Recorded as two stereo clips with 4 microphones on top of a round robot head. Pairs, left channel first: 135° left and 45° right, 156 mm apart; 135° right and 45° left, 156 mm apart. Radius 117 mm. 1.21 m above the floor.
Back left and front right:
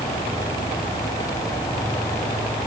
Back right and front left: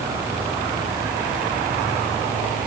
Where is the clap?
I don't hear a clap.